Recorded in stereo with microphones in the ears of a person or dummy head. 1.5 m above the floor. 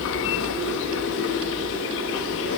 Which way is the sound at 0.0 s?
65° left (ahead or behind).